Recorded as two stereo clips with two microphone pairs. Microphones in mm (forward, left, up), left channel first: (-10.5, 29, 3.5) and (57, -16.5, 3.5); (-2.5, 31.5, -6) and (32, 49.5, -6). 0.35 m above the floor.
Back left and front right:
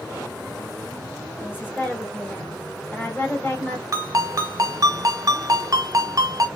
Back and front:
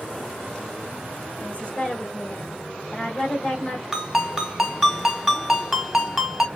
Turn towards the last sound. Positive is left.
turn(degrees=-60)